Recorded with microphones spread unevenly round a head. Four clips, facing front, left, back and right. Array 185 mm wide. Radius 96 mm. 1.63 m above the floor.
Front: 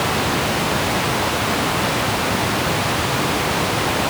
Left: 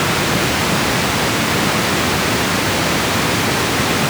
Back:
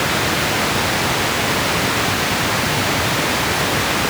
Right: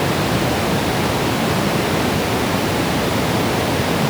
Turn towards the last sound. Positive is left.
No sound to turn to.